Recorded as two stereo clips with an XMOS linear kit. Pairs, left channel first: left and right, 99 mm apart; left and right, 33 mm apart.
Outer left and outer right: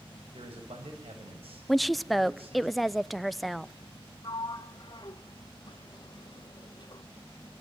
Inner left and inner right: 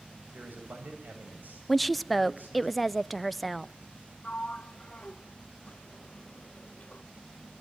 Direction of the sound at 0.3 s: 70° right (ahead or behind).